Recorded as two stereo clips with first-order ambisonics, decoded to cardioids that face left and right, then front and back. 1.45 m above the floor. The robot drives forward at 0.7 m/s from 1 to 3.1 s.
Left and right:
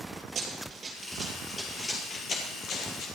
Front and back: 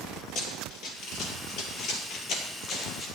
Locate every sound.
0.3 s running footsteps: 35° right, 2.5 m; by 3.1 s 55° left, 3 m